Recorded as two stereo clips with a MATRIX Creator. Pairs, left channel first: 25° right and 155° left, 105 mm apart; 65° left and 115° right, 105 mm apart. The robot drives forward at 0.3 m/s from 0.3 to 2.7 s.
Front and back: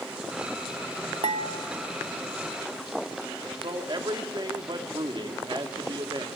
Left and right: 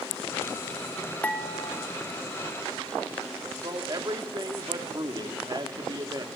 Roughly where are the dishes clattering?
Behind left.